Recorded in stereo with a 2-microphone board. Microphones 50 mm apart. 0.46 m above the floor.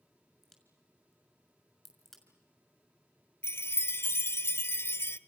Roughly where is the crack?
Centre.